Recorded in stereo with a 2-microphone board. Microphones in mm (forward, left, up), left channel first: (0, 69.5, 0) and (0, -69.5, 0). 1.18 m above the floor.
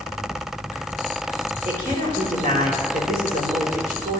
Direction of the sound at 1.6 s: 80° right.